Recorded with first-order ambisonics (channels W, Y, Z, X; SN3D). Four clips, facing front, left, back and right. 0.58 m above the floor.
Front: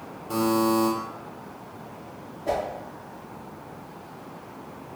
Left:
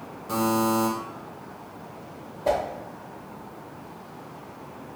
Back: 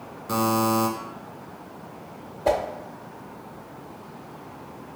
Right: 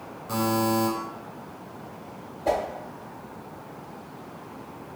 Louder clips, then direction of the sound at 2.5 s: Left 1 dB, back 4 dB; 165° left.